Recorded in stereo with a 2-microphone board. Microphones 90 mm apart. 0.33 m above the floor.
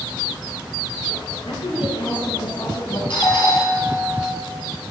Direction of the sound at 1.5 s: 75° left (ahead or behind).